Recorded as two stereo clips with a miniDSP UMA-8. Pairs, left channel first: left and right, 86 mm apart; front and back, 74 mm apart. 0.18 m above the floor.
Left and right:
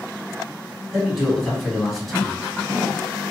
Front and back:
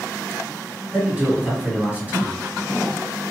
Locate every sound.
0.9 s a man speaking: 175° left, 1.4 m